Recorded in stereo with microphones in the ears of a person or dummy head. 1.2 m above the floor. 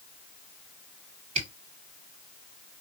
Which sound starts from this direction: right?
A camera shutter, at 1.4 s.